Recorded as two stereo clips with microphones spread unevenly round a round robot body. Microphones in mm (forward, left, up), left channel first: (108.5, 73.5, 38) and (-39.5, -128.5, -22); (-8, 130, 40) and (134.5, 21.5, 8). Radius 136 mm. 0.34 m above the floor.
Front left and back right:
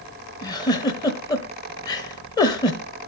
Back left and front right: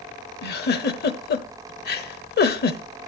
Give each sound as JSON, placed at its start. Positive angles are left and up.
{"t": 0.4, "sound": "a giggle", "azimuth_deg": 140, "distance_m": 1.1}